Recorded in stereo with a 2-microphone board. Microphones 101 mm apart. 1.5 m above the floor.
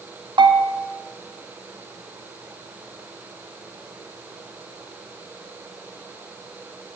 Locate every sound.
0.4 s a bell: 50° right (ahead or behind), 0.5 m